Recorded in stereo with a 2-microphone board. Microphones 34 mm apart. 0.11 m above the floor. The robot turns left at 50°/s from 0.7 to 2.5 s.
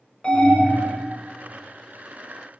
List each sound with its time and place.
0.2 s an alarm: 25° left (ahead or behind), 1.4 m